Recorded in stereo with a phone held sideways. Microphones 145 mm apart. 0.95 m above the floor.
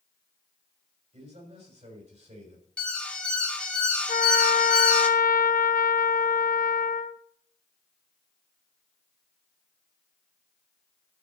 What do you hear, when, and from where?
1.1 s a man speaking: 50° right (ahead or behind), 6 m
2.8 s an alarm: 10° left (ahead or behind), 1.2 m
4.1 s a trumpet: 75° left (ahead or behind), 0.6 m